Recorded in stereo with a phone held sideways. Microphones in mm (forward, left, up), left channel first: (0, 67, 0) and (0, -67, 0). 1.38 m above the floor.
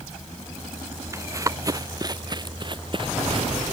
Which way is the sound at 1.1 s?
20° right (ahead or behind).